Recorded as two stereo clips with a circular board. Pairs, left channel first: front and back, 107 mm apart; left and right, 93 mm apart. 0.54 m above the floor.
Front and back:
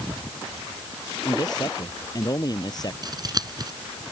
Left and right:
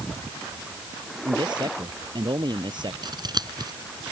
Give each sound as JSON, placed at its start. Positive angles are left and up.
{"t": 1.2, "sound": "a man speaking", "azimuth_deg": -55}
{"t": 3.0, "sound": "scissors", "azimuth_deg": -130}